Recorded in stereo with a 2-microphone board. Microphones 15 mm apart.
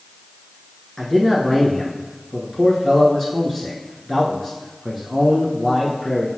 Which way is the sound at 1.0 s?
20° left (ahead or behind).